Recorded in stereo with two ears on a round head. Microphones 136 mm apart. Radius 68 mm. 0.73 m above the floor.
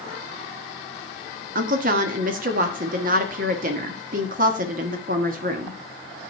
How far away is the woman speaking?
About 1.4 m.